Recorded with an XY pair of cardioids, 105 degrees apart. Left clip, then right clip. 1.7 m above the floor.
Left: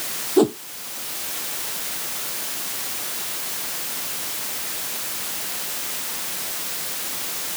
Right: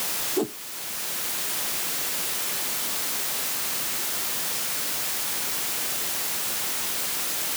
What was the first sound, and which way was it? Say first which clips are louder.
A whoosh: left 12 dB; 60° left.